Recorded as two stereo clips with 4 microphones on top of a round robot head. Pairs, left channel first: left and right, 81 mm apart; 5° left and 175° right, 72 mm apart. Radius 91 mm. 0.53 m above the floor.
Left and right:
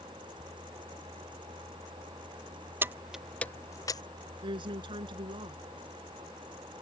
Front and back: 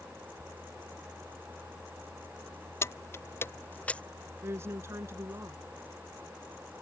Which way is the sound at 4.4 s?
115° right.